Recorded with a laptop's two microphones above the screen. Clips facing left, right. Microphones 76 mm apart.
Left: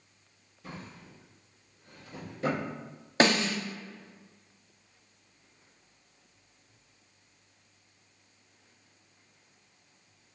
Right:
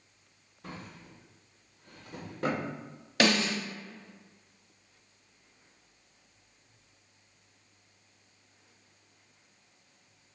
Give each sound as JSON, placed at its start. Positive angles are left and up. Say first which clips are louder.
{"t": 0.6, "sound": "a drawer", "louder": "even", "side_deg": -55, "distance_m": 1.6}
{"t": 3.2, "sound": "a snare drum", "louder": "left 2 dB", "side_deg": 30, "distance_m": 0.7}